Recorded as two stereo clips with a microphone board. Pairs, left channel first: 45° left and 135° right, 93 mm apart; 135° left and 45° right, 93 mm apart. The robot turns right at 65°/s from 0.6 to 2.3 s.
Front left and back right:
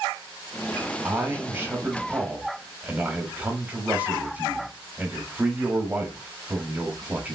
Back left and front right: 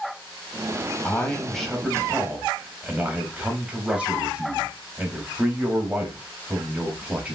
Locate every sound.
1.0 s a man speaking: straight behind, 0.9 m; by 7.3 s 95° right, 0.9 m